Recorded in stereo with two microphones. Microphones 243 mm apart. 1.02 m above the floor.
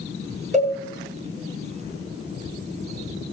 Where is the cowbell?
30° right (ahead or behind), 4.5 m.